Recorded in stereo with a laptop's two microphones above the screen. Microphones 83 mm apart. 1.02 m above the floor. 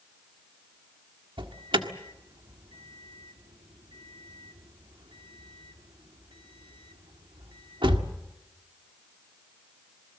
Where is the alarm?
80° right, 1.6 m.